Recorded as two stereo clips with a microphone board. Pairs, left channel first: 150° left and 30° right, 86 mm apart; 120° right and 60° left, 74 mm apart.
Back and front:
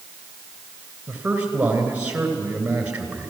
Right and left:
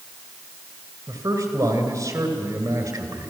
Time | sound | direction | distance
1.1 | a man speaking | 45° left | 3 m